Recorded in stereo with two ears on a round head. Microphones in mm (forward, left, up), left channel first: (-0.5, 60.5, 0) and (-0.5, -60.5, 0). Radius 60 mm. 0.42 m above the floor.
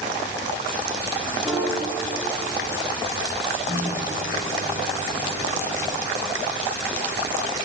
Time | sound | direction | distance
1.4 | a piano | centre (ahead or behind) | 10 m
3.7 | a microwave | 40° left (ahead or behind) | 10 m